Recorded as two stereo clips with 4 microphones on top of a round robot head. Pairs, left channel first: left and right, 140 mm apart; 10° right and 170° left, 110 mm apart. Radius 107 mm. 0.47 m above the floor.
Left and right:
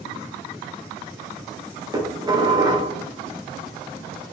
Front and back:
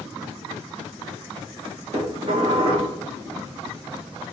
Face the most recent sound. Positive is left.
turn(degrees=-150)